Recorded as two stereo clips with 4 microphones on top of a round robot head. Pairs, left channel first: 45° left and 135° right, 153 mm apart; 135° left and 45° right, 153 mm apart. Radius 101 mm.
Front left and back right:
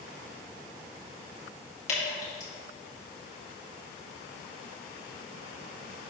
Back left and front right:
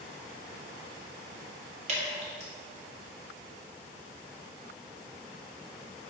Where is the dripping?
Straight ahead, 2 m.